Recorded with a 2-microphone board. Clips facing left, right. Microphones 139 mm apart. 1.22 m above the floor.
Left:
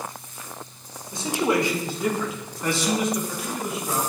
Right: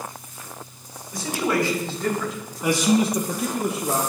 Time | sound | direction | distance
1.1 | a man speaking | 30° left (ahead or behind) | 3 m